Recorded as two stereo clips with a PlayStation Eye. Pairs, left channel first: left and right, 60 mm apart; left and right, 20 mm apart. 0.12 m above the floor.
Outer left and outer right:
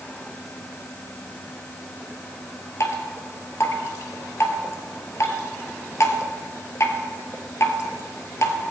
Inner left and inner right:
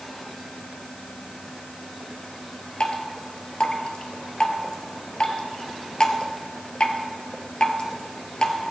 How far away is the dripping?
About 2 m.